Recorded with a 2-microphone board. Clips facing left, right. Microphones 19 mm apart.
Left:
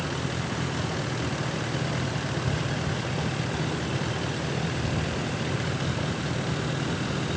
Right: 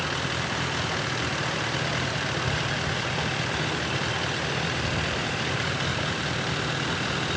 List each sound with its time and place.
0.0 s a vehicle: 25° right (ahead or behind)